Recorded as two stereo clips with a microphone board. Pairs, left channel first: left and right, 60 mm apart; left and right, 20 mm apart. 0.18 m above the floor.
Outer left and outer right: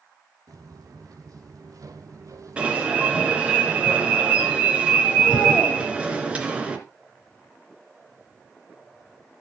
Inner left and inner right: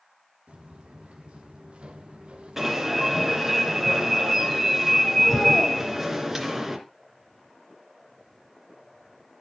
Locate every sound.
0.5 s footsteps: 85° right, 3.5 m; by 3.6 s 55° right (ahead or behind), 3.5 m
2.6 s an alarm: 20° right (ahead or behind), 3 m